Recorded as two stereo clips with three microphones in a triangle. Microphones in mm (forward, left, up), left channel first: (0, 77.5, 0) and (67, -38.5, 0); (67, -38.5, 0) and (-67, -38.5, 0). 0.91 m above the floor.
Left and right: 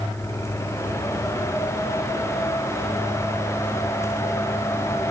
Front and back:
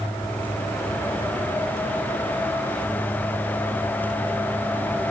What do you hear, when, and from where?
Only background noise.